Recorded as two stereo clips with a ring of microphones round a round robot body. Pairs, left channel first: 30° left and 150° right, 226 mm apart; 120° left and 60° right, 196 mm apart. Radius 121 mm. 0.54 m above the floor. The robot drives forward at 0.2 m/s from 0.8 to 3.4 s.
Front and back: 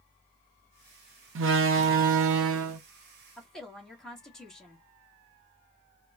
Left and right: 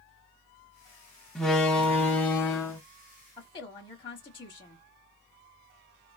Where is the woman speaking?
115° left, 1.0 m.